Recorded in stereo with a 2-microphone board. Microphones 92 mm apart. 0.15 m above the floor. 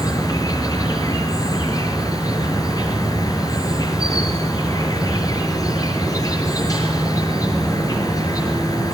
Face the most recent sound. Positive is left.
turn(degrees=40)  # may be behind; listen again after turning